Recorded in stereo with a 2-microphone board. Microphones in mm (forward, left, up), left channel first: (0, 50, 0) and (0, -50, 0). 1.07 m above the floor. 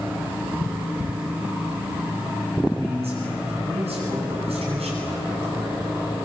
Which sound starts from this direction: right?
A man speaking, at 2.8 s.